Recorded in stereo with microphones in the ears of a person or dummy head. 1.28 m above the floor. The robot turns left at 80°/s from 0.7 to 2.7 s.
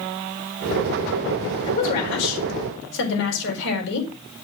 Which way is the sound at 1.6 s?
150° left.